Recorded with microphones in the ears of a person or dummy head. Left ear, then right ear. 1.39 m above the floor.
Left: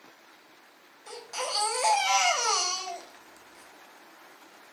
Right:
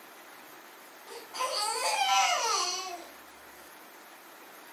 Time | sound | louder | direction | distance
1.1 | a baby crying | left 1 dB | 80° left | 4.5 m